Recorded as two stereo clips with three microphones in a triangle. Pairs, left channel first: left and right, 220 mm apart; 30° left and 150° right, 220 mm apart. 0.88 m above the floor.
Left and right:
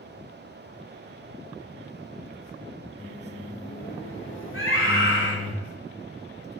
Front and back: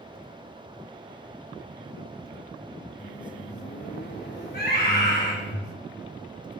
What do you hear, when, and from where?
3.0 s a microwave: 65° left, 1.7 m
4.5 s a scream: 70° left, 3 m